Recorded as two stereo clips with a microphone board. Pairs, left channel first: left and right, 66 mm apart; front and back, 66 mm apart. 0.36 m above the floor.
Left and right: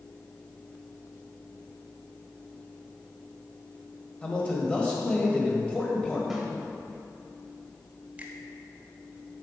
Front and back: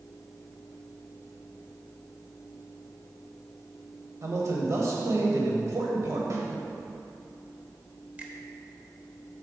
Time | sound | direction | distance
4.2 | a man speaking | 160° left | 1.4 m
6.3 | a snare drum | 175° right | 1.4 m
8.2 | a finger snap | 135° right | 1.0 m